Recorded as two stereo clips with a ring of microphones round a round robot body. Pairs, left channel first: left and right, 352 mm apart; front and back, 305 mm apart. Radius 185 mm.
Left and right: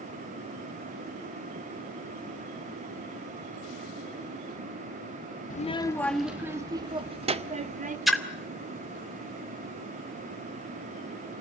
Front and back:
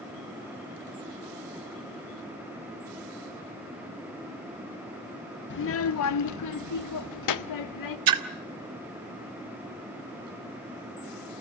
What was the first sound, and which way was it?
A child speaking, 35° left.